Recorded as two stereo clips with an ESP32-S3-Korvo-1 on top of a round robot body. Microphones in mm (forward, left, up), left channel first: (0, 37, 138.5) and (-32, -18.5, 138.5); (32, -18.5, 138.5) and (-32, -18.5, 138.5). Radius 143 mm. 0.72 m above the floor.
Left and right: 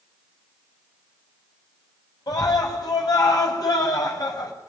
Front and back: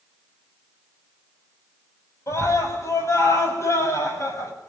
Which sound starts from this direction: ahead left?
A scream, at 2.3 s.